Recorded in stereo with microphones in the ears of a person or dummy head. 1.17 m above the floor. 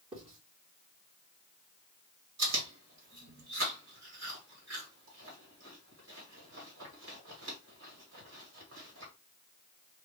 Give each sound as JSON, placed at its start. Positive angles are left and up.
{"t": 0.1, "sound": "writing", "side_deg": -25, "distance_m": 3.0}
{"t": 2.4, "sound": "chewing", "side_deg": -60, "distance_m": 1.7}